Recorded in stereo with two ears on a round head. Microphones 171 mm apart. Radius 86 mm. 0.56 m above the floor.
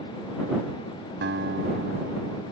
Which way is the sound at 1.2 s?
60° right (ahead or behind).